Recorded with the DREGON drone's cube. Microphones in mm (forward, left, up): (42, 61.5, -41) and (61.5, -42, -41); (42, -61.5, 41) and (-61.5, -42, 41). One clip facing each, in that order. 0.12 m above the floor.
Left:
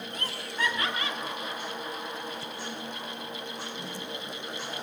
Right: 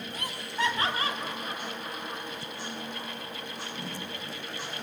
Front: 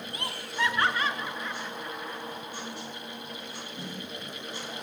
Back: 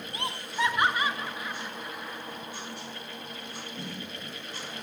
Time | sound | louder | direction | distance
0.1 | laughter | right 2 dB, back 2 dB | 150° right | 1.6 m